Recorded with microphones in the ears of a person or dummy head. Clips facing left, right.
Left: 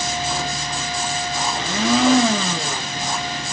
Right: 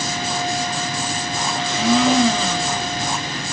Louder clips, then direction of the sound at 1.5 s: Right 2 dB; 45° left (ahead or behind).